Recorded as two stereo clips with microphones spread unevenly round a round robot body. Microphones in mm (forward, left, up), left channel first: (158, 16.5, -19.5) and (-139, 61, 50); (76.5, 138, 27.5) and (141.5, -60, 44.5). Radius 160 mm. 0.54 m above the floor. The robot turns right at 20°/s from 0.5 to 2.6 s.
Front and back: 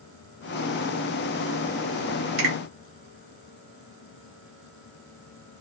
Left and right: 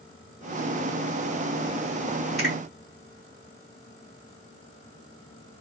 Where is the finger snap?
170° right, 1.2 m; by 2.5 s 165° right, 1.2 m.